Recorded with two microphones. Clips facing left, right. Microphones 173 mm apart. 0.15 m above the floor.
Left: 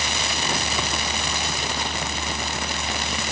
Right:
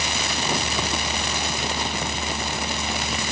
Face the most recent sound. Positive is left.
No sound to turn to.